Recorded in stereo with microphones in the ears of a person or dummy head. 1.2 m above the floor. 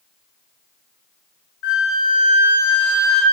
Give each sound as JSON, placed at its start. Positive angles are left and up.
{"t": 1.6, "sound": "a flute", "side_deg": 50, "distance_m": 0.6}